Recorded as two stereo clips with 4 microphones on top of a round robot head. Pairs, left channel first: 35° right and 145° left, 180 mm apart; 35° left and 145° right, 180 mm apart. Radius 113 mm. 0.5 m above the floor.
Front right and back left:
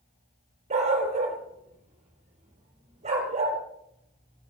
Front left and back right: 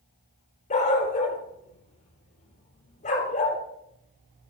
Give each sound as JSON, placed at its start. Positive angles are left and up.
{"t": 0.7, "sound": "a dog barking", "azimuth_deg": 90, "distance_m": 3.5}